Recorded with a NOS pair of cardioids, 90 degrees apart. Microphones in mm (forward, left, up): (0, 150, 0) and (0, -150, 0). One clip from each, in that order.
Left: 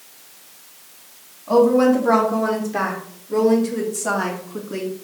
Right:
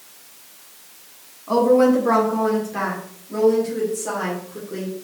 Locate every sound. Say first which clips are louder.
1.5 s a woman speaking: left 1 dB; straight ahead, 1.5 m; by 4.9 s 55° left, 2 m